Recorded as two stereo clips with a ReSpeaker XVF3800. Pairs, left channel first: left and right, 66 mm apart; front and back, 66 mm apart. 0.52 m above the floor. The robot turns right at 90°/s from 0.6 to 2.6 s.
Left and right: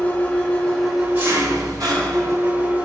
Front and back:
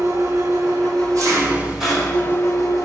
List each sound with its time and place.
0.0 s an engine running: 155° left, 1.7 m; by 2.9 s 25° right, 1.7 m